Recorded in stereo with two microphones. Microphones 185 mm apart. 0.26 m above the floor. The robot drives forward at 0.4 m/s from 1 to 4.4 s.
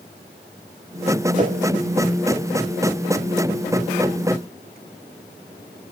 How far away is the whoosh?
About 0.8 m.